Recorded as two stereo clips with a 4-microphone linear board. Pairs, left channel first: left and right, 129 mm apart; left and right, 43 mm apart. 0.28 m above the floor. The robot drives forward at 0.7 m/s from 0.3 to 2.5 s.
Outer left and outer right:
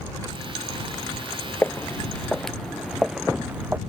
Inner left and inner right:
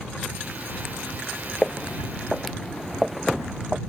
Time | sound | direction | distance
1.6 | footsteps | 10° left (ahead or behind) | ?